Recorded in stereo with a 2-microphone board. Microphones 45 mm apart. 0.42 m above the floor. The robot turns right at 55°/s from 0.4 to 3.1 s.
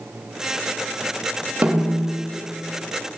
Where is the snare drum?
35° right (ahead or behind), 1.1 m; by 2.1 s 10° right (ahead or behind), 1.1 m.